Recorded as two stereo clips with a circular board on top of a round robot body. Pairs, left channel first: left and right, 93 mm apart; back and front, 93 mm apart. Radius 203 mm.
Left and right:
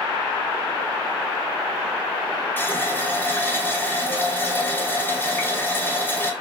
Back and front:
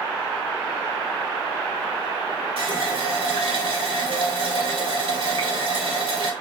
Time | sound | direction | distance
2.6 | a running tap | 20° left | 1.2 m